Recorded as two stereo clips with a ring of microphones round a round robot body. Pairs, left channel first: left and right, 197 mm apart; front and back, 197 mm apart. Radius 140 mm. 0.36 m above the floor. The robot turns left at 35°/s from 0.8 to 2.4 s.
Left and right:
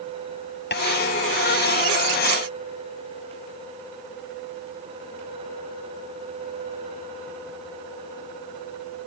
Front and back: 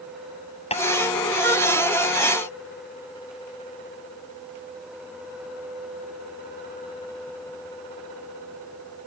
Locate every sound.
0.7 s tapping: 60° left